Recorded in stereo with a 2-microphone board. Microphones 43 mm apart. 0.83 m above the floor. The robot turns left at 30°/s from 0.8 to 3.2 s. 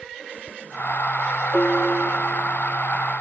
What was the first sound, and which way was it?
A piano, 65° left.